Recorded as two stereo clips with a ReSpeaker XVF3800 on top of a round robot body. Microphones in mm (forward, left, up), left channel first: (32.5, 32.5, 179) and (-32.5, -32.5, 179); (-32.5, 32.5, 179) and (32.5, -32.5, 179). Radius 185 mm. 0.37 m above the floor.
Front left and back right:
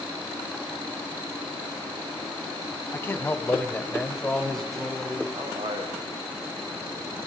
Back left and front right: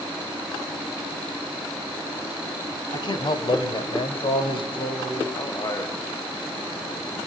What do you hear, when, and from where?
2.9 s a man speaking: 105° left, 2.5 m; by 5.2 s 135° left, 4.5 m
5.3 s a man speaking: straight behind, 3 m